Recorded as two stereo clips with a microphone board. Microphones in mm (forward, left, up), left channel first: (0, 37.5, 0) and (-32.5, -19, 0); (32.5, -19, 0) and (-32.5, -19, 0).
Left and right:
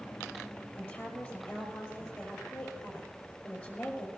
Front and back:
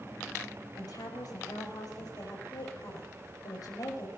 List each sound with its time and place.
0.8 s a woman speaking: straight ahead, 5.5 m